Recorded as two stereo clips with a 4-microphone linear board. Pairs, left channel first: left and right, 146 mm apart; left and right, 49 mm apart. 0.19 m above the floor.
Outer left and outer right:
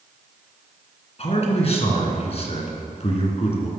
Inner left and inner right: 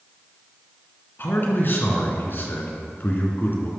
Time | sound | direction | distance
1.2 | a man speaking | 45° left (ahead or behind) | 2.5 m